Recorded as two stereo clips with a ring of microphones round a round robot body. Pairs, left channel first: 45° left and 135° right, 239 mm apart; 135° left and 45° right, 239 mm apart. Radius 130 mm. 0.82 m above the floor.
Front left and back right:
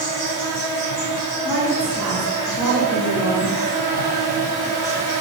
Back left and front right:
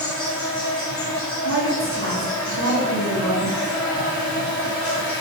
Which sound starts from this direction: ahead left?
An insect, at 0.0 s.